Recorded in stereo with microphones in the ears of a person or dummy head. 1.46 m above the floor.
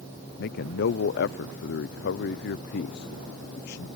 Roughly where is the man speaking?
Left.